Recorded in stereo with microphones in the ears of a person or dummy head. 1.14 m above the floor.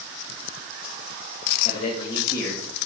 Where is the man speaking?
35° left (ahead or behind), 1.8 m; by 2.9 s centre (ahead or behind), 1.4 m.